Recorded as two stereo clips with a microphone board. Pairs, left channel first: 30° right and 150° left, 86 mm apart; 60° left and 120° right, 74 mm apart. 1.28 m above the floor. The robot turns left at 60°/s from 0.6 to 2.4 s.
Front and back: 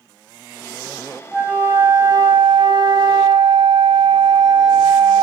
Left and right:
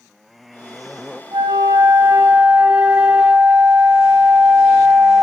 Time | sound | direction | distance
1.3 | a flute | 125° right | 2.5 m